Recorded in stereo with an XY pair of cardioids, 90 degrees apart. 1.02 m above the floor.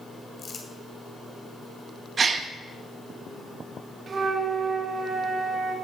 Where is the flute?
50° right, 1.3 m.